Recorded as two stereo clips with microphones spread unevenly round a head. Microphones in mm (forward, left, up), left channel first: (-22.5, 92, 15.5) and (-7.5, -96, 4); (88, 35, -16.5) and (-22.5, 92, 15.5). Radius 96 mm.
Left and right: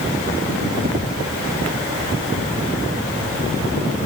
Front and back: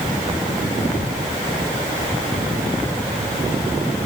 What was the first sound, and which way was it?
Only background noise.